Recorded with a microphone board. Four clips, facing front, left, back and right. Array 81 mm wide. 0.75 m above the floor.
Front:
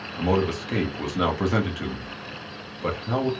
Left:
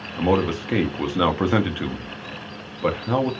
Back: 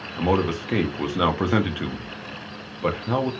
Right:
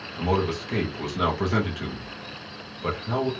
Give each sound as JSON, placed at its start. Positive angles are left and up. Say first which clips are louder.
{"t": 0.2, "sound": "a man speaking", "louder": "left 4 dB, back 1 dB", "azimuth_deg": 115, "distance_m": 0.7}